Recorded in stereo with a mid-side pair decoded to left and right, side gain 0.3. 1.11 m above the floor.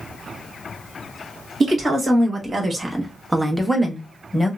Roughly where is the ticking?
No ticking in this recording.